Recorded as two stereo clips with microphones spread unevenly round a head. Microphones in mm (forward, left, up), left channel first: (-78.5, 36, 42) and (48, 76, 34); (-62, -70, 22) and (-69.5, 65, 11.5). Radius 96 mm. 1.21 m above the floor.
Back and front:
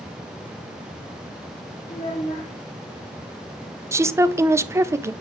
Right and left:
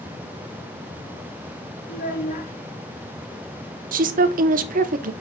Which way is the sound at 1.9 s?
105° right.